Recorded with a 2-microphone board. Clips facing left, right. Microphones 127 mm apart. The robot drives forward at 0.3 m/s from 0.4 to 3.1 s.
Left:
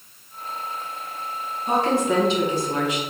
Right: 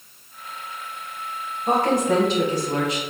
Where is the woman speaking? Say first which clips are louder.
Right 1 dB; 50° right (ahead or behind), 1.1 m; by 3.0 s 40° right (ahead or behind), 1.4 m.